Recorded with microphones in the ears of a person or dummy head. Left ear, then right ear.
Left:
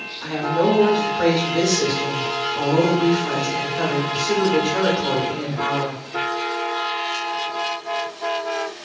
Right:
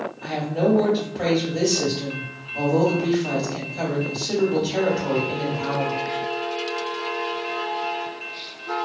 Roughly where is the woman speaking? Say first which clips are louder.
Left 4 dB; left.